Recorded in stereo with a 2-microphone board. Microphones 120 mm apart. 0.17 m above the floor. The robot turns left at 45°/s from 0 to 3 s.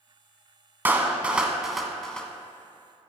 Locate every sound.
0.8 s a clap: 15° right (ahead or behind), 1.0 m; by 2.3 s 10° left (ahead or behind), 1.0 m